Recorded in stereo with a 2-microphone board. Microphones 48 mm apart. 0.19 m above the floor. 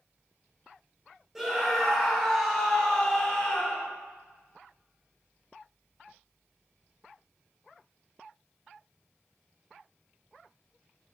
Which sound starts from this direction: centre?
A scream, at 1.4 s.